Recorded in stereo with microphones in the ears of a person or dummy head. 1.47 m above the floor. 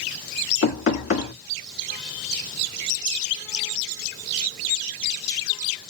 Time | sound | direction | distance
0.6 | knocking | 60° left (ahead or behind) | 2 m